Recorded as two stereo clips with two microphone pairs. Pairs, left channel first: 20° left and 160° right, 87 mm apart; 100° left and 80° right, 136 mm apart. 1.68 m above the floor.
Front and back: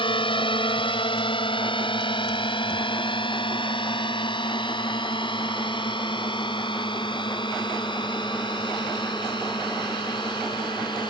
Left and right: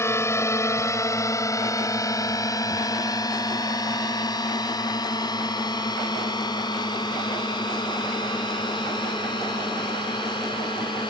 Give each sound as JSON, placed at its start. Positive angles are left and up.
{"t": 0.0, "sound": "a drone", "azimuth_deg": 30}